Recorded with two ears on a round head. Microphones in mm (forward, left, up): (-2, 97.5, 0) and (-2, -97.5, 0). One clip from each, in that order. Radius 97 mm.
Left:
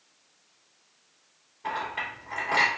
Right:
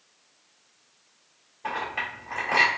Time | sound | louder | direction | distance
1.6 | a clink | right 1 dB | 5° right (ahead or behind) | 2.0 m